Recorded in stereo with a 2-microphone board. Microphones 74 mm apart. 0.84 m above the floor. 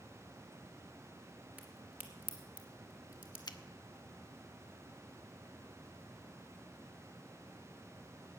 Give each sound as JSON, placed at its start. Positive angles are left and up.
{"t": 1.6, "sound": "a crack", "side_deg": -20, "distance_m": 1.8}
{"t": 3.5, "sound": "a finger snap", "side_deg": 70, "distance_m": 0.7}